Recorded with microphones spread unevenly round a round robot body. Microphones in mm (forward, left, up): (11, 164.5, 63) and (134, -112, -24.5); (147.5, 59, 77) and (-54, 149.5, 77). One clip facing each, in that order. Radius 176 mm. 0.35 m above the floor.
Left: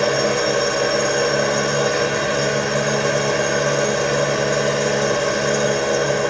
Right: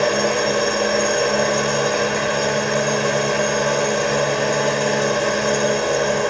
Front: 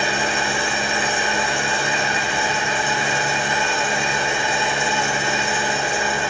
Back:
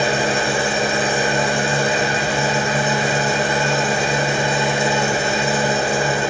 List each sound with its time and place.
0.0 s an engine running: 160° right, 1.0 m